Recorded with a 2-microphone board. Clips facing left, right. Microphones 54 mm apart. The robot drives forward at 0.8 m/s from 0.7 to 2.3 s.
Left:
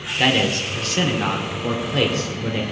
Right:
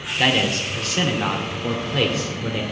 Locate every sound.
0.2 s a man speaking: centre (ahead or behind), 1.0 m